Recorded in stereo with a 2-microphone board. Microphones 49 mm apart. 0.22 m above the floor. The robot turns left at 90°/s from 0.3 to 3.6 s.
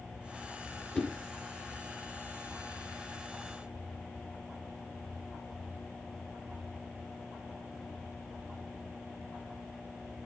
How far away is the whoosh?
About 1.0 m.